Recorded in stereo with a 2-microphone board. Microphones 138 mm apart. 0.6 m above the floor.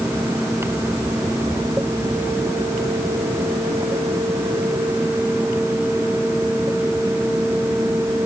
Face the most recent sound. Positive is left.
No sound to turn to.